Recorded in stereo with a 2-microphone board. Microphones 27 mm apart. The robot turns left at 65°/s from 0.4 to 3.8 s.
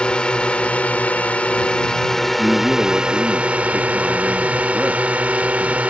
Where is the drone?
130° left; by 5.9 s 90° right.